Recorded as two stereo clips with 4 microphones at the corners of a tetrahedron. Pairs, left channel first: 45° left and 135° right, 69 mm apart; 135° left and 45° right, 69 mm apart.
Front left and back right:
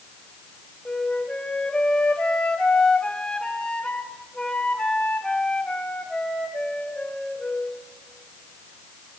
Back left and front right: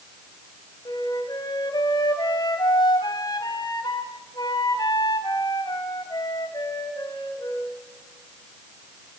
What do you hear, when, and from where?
0.8 s a flute: 125° left, 3 m